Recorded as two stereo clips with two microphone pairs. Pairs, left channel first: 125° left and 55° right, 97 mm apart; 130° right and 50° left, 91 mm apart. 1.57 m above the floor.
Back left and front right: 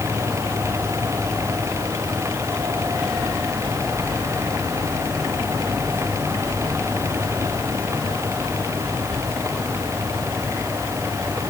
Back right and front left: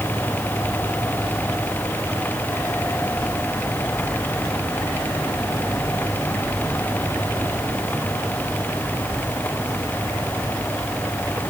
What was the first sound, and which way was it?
Only background noise.